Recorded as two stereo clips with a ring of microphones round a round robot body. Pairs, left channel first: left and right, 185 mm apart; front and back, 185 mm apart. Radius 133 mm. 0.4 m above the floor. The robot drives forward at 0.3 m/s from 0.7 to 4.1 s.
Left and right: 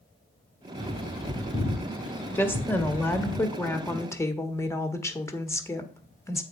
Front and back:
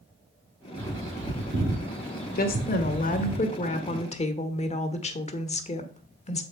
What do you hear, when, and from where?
0.8 s a bird: straight behind, 3.5 m
2.4 s a woman speaking: 15° left, 1.5 m; by 6.4 s 25° left, 1.2 m